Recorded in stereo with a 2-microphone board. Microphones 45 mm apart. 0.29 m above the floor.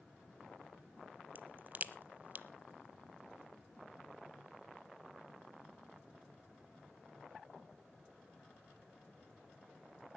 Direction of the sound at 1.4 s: 40° right (ahead or behind).